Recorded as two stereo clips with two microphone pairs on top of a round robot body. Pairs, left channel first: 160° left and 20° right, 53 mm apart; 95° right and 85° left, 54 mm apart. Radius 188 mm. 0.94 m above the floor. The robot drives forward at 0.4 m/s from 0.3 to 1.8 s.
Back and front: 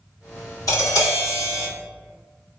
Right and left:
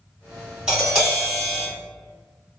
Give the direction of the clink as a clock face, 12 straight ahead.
I don't hear a clink.